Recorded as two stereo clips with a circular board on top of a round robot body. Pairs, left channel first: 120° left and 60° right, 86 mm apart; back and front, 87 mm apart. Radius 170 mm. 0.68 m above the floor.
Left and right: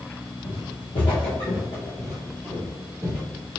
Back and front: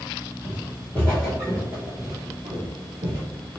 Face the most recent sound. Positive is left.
turn(degrees=5)